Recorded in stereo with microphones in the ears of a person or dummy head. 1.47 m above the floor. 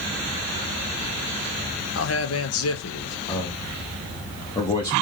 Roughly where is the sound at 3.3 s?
Left.